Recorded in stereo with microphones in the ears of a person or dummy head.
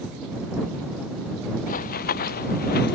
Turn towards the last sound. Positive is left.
turn(degrees=55)  # may be behind; listen again after turning